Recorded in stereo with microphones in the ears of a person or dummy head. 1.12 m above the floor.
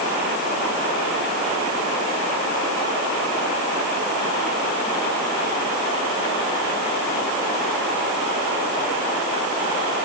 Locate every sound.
Only background noise.